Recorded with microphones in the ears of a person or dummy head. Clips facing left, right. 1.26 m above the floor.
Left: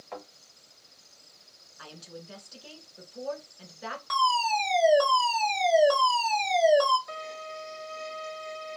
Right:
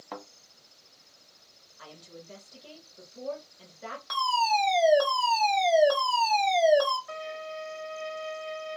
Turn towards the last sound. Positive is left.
turn(degrees=55)  # may be behind; listen again after turning